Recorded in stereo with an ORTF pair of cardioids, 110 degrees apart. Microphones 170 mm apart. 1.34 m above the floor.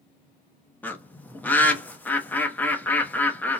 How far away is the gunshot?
I don't hear a gunshot.